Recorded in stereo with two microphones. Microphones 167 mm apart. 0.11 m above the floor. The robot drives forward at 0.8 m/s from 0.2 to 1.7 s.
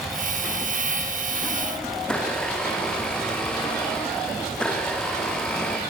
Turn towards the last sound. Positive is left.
turn(degrees=5)  # may be behind; listen again after turning